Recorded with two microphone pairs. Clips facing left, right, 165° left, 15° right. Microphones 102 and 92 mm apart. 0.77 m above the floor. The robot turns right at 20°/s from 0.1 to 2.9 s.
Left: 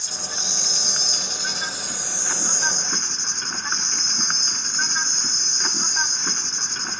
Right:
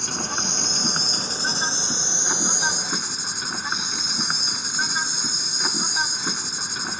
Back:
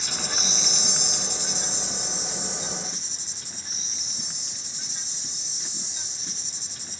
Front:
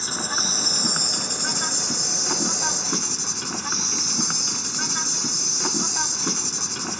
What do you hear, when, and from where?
0.0 s an insect: 65° right; by 7.0 s 10° right